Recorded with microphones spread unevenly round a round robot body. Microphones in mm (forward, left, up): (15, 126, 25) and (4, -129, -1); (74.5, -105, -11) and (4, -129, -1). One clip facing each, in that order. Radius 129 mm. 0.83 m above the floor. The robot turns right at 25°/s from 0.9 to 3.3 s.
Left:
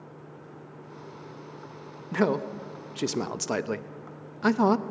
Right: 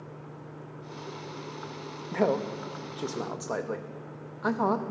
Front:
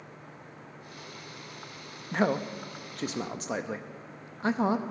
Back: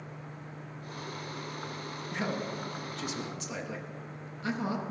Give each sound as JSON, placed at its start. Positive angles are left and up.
{"t": 2.1, "sound": "a man speaking", "azimuth_deg": 20, "distance_m": 0.5}